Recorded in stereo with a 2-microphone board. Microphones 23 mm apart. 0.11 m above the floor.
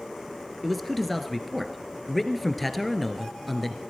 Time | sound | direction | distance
0.6 | a man speaking | 5° left (ahead or behind) | 1.4 m